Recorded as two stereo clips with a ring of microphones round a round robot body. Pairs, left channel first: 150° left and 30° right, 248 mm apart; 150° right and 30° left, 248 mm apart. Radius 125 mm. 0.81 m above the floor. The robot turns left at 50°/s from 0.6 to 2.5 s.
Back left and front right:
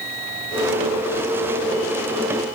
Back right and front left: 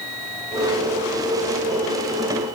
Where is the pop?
I don't hear a pop.